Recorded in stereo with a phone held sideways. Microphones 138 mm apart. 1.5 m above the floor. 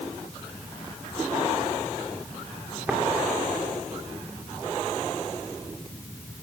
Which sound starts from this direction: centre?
Tapping, at 2.9 s.